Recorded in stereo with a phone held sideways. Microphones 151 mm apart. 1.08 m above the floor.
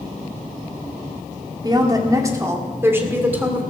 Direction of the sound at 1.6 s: 30° right (ahead or behind).